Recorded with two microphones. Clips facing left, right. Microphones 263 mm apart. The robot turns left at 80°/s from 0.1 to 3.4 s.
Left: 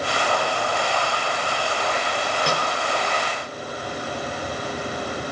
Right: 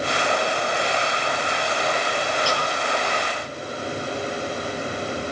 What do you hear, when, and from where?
2.5 s a snare drum: 20° left (ahead or behind), 7.5 m; by 2.7 s 35° left (ahead or behind), 7.5 m